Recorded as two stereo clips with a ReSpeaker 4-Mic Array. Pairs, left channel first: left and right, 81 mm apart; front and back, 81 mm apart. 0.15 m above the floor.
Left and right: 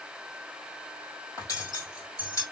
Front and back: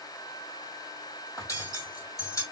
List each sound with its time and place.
1.4 s cutlery clinking: 45° left, 2.5 m